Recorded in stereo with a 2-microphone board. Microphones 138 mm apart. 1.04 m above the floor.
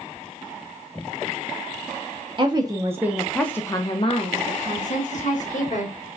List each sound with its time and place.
2.4 s a woman speaking: 35° right (ahead or behind), 0.8 m; by 6.0 s 60° left (ahead or behind), 1.6 m